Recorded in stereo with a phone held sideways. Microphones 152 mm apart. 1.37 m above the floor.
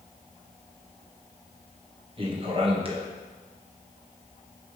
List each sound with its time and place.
2.2 s a man speaking: 35° right (ahead or behind), 1.0 m